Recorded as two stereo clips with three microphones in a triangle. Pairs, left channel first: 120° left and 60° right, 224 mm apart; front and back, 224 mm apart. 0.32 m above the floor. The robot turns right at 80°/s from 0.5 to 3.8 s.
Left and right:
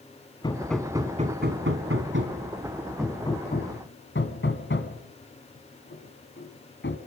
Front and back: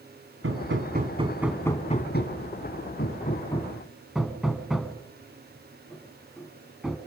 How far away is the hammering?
About 2 m.